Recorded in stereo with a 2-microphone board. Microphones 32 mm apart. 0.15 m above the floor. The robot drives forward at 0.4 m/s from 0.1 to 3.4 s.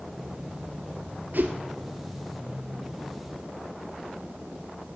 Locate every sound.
1.3 s a whoosh: 70° right (ahead or behind), 1.1 m; by 1.5 s 65° right (ahead or behind), 1.1 m